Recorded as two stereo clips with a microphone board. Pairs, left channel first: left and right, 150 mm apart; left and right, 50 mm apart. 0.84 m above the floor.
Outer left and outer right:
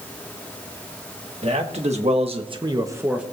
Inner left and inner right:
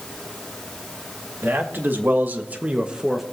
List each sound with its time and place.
1.4 s a man speaking: 45° right (ahead or behind), 1.7 m; by 3.2 s 5° right (ahead or behind), 1.0 m